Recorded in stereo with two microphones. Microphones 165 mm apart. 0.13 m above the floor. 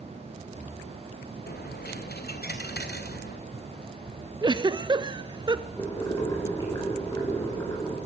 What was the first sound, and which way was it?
A dropped coin, 65° left (ahead or behind).